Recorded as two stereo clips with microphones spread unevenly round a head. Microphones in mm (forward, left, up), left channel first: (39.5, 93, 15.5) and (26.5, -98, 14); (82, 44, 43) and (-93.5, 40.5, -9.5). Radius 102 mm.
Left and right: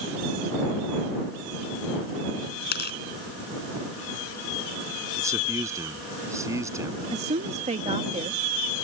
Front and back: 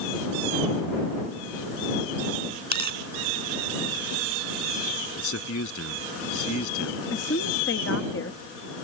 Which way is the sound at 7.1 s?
40° right.